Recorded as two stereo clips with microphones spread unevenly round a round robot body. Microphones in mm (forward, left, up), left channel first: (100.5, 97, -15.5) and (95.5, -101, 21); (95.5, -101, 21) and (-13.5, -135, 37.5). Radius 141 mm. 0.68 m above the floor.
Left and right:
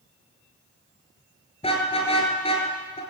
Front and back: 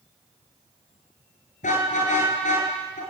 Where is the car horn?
25° left, 6.5 m.